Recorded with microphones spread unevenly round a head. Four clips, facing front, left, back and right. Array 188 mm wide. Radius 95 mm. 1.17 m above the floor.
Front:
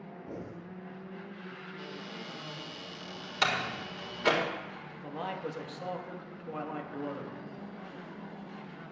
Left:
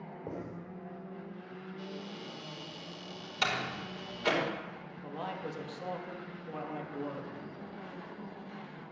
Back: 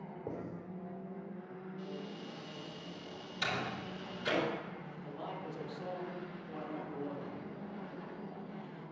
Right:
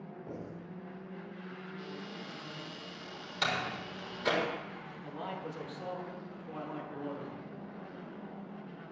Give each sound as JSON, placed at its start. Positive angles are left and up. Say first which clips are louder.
{"t": 0.3, "sound": "writing", "louder": "left 3 dB, even", "azimuth_deg": 130, "distance_m": 5.0}
{"t": 1.8, "sound": "a cupboard door", "louder": "left 2 dB, even", "azimuth_deg": 15, "distance_m": 3.5}
{"t": 3.4, "sound": "a door slam", "louder": "even, front 6 dB", "azimuth_deg": 15, "distance_m": 4.0}
{"t": 5.0, "sound": "a man speaking", "louder": "left 2 dB, front 7 dB", "azimuth_deg": 20, "distance_m": 2.5}